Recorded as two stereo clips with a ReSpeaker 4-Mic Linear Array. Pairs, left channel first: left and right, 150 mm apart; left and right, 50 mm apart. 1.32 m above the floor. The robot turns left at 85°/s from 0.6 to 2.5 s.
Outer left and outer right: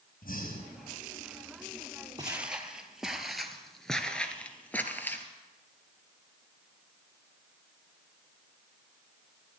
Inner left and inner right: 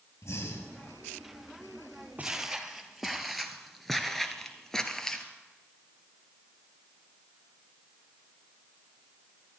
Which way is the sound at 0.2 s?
70° left (ahead or behind).